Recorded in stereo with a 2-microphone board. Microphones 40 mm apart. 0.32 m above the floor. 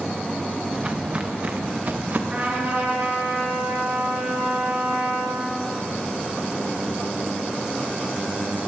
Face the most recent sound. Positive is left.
turn(degrees=-40)  # may be behind; listen again after turning